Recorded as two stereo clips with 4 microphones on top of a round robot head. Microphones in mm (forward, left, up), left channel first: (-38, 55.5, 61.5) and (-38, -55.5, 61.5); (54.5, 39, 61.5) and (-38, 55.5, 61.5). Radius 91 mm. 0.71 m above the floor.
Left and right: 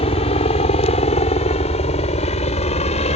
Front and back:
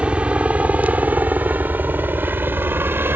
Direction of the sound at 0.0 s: 95° left.